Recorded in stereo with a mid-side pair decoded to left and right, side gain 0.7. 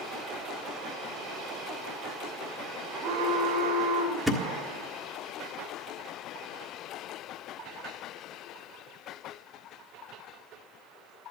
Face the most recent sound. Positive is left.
turn(degrees=0)